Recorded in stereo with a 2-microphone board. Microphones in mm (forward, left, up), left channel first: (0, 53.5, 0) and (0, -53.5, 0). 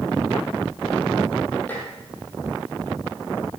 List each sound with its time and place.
1.7 s dishes clattering: 20° left (ahead or behind), 4.5 m